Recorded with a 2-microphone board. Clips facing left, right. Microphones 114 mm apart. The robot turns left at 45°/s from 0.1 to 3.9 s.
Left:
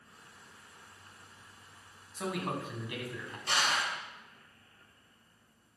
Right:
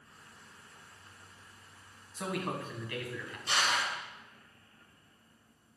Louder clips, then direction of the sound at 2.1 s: Even; 175° right.